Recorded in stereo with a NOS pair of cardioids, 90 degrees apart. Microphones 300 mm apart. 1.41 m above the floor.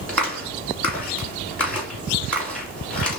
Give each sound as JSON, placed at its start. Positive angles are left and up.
{"t": 0.1, "sound": "a clap", "azimuth_deg": 5, "distance_m": 3.0}